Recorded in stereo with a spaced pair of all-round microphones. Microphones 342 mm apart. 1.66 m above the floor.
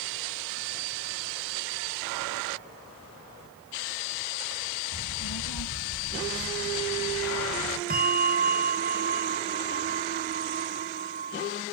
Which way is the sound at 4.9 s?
80° left.